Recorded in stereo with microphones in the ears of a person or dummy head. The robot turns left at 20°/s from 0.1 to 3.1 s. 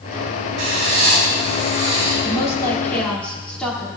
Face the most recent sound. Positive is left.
turn(degrees=5)  # may be behind; listen again after turning